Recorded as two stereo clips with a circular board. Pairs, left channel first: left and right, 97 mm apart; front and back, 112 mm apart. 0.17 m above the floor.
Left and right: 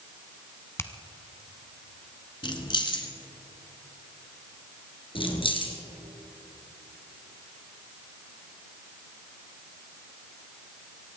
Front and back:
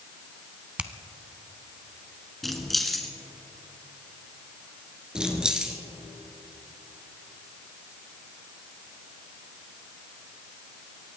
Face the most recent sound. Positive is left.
turn(degrees=95)